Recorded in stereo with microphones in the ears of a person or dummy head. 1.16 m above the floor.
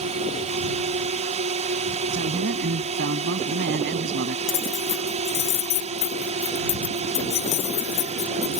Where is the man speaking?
60° right (ahead or behind).